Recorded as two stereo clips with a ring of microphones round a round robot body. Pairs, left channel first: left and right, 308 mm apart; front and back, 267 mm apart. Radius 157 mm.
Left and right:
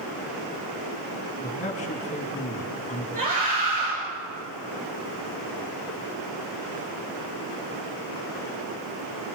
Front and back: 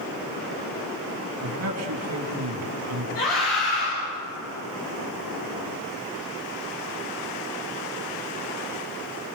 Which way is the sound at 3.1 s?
25° right.